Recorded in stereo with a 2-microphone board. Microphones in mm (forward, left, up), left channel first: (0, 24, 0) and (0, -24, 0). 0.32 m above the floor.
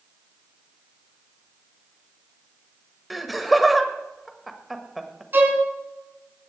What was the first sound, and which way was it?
Laughter, centre (ahead or behind).